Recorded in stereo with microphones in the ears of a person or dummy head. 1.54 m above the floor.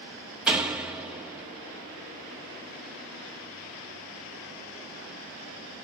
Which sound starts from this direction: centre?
A door slam, at 0.5 s.